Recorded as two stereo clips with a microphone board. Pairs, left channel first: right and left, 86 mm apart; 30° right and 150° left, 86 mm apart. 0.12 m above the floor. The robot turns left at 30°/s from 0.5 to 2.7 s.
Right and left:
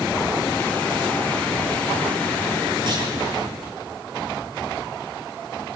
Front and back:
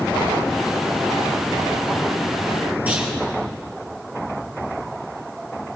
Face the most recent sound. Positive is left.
turn(degrees=80)